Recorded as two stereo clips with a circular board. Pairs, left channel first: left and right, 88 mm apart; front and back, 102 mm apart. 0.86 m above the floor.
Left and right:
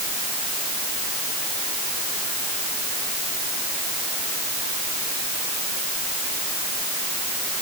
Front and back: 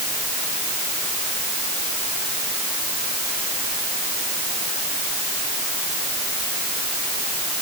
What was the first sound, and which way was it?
Only background noise.